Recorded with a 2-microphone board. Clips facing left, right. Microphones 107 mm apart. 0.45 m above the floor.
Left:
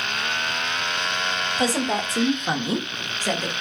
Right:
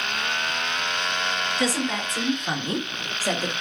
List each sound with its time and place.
1.6 s a woman speaking: 35° left (ahead or behind), 1.3 m; by 3.5 s 10° right (ahead or behind), 1.4 m